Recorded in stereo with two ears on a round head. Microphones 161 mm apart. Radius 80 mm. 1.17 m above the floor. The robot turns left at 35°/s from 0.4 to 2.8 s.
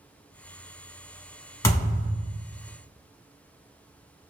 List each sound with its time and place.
1.6 s a thud: 20° left (ahead or behind), 1.1 m; by 2.2 s 15° left (ahead or behind), 1.1 m